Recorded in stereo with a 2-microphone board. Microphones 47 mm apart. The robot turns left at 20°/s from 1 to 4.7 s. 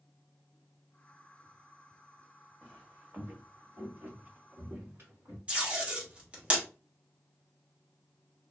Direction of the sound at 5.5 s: 30° right (ahead or behind).